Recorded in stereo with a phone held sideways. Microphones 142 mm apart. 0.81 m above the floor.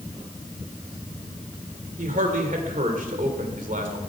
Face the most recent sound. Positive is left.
turn(degrees=-70)  # may be behind; listen again after turning